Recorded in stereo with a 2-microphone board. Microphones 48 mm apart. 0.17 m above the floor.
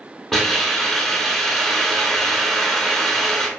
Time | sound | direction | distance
0.3 | a hiss | 5° left (ahead or behind) | 0.6 m